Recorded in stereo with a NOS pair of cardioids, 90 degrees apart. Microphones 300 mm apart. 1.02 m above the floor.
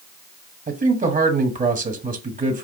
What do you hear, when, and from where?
0.7 s a man speaking: 25° right, 1.4 m